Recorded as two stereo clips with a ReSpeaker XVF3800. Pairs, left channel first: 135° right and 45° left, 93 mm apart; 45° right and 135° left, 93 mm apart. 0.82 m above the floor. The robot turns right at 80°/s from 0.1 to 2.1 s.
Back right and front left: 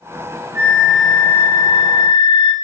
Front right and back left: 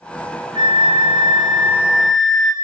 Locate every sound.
0.6 s a flute: 100° left, 1.7 m; by 2.5 s 135° right, 1.7 m